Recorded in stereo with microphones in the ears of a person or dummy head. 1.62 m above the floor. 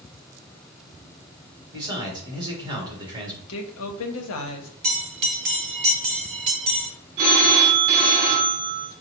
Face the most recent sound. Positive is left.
turn(degrees=-40)  # may be behind; listen again after turning